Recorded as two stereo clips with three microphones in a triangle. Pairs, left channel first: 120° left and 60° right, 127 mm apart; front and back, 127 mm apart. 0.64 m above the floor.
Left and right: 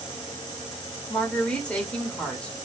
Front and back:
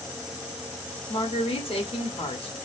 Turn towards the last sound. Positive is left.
turn(degrees=40)